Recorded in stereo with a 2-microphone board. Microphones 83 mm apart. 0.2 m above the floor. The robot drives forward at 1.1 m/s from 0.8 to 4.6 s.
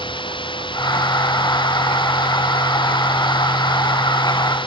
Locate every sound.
0.0 s running water: 80° left; by 4.7 s 85° left